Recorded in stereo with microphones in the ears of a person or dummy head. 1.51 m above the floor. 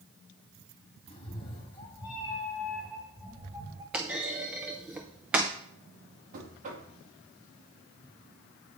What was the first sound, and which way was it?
A cat meowing, 35° left (ahead or behind).